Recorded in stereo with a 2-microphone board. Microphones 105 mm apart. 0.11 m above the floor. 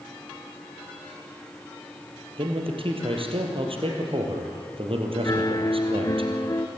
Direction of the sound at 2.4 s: 60° right (ahead or behind).